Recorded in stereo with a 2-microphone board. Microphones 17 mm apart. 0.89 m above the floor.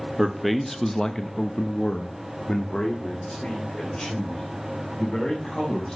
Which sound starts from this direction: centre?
A man speaking, at 0.2 s.